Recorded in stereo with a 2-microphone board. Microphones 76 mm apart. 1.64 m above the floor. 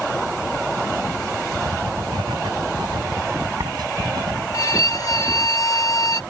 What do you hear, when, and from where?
1.6 s writing: 65° right (ahead or behind)
4.5 s a violin: 50° left (ahead or behind)